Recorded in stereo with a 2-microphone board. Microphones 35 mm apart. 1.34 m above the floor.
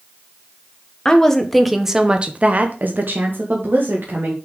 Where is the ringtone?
No ringtone in this recording.